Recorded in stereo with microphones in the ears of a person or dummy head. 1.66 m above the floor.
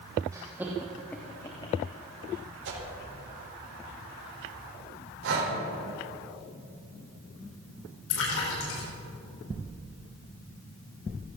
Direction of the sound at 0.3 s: 20° right (ahead or behind).